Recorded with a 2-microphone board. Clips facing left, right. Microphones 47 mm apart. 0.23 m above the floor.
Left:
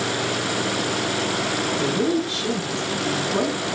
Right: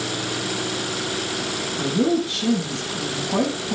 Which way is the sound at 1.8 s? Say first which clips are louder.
Right 3 dB; 75° right (ahead or behind).